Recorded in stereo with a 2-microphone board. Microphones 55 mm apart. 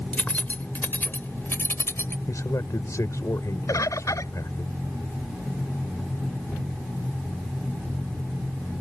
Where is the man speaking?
75° left (ahead or behind).